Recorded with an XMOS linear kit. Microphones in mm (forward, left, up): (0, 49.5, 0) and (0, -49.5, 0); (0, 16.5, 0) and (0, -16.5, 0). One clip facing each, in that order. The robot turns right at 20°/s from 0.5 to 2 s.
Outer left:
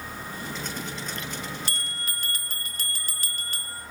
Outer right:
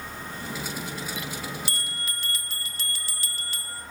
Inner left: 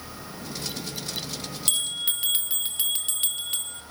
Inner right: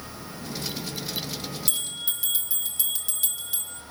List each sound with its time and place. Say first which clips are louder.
1.7 s a bell: even, inner left 8 dB; 55° left (ahead or behind), 1.4 m; by 3.8 s 50° left (ahead or behind), 1.4 m